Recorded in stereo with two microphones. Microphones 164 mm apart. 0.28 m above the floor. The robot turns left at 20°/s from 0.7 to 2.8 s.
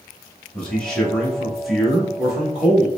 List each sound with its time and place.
0.5 s a man speaking: 5° left (ahead or behind), 0.9 m; by 2.9 s 5° right (ahead or behind), 0.9 m